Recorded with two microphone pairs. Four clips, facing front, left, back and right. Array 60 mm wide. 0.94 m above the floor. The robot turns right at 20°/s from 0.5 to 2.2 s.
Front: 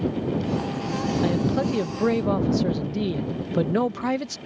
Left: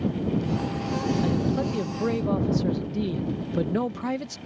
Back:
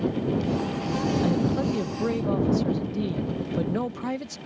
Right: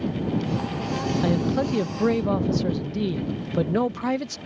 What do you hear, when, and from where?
1.2 s a man speaking: 50° right; by 4.4 s 30° right